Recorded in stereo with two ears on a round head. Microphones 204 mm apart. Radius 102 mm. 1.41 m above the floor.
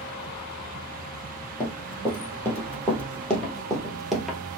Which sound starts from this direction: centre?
Running footsteps, at 1.6 s.